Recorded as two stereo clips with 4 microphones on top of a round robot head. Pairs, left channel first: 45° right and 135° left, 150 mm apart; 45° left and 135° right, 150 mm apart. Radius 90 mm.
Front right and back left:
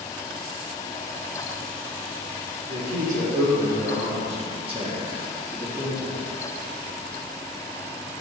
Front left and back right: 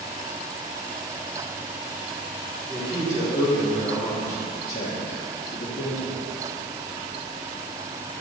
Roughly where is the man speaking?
Behind left.